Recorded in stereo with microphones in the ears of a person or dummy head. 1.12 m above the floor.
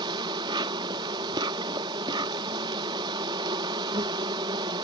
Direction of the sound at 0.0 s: 25° right (ahead or behind).